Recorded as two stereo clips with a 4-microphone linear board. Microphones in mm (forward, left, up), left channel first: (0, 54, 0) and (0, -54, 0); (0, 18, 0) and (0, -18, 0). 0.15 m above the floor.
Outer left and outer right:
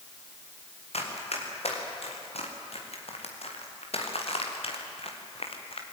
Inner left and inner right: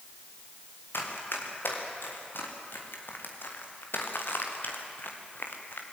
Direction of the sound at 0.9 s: 75° left (ahead or behind).